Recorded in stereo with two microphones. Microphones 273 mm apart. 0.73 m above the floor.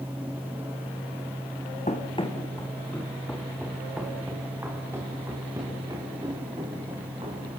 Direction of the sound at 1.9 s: 25° left (ahead or behind).